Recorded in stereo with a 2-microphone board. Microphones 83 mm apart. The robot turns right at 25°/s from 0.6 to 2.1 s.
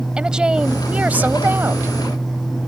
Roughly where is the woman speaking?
Behind.